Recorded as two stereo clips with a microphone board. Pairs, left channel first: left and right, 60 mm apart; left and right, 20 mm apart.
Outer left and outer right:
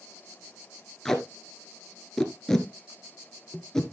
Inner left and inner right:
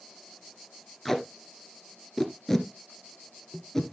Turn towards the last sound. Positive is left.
turn(degrees=10)  # may be behind; listen again after turning